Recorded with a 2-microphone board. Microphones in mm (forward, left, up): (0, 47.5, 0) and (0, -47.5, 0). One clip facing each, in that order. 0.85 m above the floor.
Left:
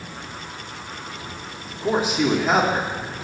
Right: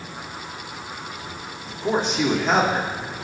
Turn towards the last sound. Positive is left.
turn(degrees=5)  # may be behind; listen again after turning